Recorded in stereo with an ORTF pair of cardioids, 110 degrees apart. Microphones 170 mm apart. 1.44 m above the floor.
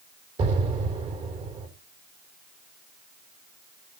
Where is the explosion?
40° right, 3.5 m.